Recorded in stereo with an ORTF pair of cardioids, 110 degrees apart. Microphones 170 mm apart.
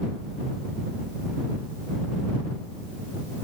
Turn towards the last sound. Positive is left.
No sound to turn to.